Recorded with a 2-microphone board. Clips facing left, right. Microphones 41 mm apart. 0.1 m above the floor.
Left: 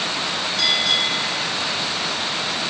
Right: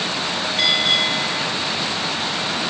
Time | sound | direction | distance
0.6 | a bell | 35° right (ahead or behind) | 2 m